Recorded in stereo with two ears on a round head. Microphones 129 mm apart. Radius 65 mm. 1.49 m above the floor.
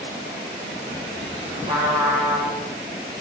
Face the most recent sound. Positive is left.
turn(degrees=-30)  # may be behind; listen again after turning